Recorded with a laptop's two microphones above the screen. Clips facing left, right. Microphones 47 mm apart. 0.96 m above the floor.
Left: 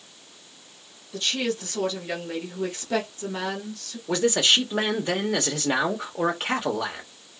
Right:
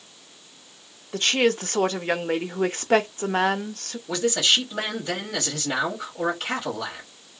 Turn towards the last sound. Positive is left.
turn(degrees=35)  # may be behind; listen again after turning